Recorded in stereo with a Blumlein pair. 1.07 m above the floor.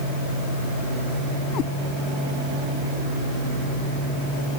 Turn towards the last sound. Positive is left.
turn(degrees=35)